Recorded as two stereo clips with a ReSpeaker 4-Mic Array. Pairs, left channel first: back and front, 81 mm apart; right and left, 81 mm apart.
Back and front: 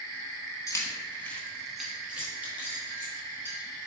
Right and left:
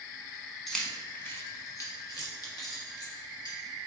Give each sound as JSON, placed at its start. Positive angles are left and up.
{"t": 0.7, "sound": "keys jangling", "azimuth_deg": -175, "distance_m": 0.9}